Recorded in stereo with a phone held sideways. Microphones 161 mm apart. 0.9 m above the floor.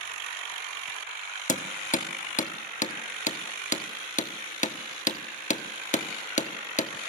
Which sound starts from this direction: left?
Hammering, at 1.5 s.